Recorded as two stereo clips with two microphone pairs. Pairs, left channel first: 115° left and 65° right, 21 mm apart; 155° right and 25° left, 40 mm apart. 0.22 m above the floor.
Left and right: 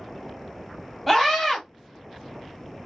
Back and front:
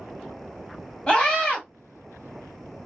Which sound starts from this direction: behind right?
A scream, at 1.1 s.